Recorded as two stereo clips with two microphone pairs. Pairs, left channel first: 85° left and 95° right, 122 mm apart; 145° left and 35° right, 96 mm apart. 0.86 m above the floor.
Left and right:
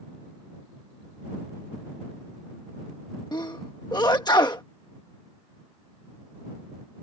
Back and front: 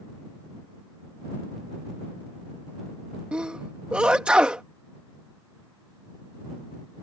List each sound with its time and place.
3.3 s a sneeze: 40° left